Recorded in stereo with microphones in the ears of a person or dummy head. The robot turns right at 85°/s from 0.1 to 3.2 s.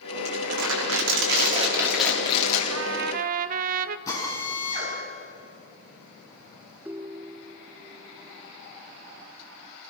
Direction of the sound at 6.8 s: 10° right (ahead or behind).